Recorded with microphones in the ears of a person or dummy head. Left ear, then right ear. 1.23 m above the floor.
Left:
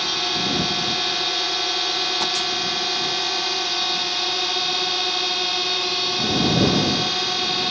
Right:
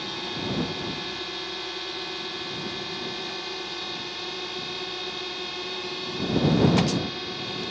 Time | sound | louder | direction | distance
0.0 | a drone | left 10 dB | 40° left (ahead or behind) | ?